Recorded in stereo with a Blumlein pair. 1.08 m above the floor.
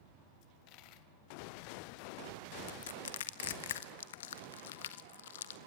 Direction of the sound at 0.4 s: 40° left.